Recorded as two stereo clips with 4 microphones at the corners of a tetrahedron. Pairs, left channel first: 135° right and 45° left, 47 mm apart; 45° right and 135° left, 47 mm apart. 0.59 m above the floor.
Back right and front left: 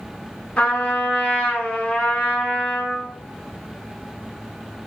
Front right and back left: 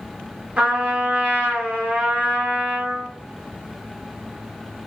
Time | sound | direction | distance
0.6 | a trumpet | straight behind | 0.9 m